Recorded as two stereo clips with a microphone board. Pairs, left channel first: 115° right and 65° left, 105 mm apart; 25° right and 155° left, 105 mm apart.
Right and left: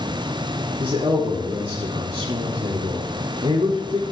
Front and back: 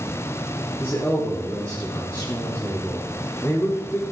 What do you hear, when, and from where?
0.8 s a man speaking: 45° left, 2.5 m